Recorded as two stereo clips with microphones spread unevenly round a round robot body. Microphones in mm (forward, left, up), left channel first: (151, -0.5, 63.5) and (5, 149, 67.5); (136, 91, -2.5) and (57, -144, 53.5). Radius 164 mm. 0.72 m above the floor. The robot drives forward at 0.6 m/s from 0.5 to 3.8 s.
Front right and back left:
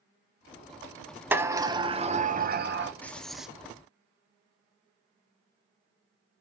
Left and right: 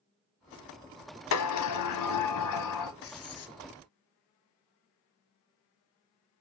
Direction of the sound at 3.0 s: 35° left.